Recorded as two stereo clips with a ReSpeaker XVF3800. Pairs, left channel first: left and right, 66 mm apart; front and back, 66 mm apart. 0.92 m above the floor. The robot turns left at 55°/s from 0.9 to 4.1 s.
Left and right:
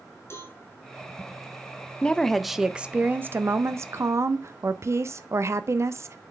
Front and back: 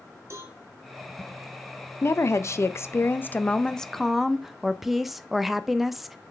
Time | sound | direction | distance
0.3 | a cowbell | 135° left | 2.5 m
2.0 | a woman speaking | 20° left | 0.5 m